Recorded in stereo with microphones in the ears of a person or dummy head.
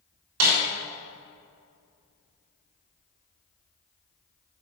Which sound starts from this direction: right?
A snare drum, at 0.4 s.